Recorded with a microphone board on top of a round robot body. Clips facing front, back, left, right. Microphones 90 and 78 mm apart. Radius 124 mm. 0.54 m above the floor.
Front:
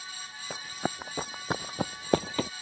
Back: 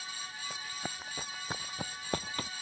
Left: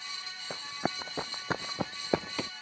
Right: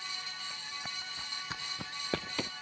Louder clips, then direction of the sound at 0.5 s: Front 10 dB, left 9 dB; 45° left.